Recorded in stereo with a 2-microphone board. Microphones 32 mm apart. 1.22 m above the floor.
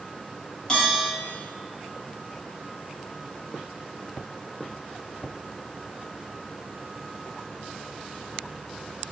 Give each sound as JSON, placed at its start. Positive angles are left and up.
{"t": 0.7, "sound": "a bell", "side_deg": 15, "distance_m": 1.9}